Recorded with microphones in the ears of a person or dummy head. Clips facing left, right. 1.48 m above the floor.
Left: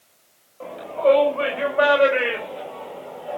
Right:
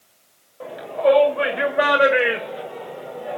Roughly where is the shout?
Centre.